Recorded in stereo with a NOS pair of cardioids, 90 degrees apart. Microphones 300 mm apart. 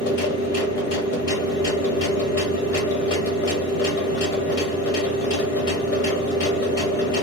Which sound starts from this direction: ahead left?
A machine running, at 0.0 s.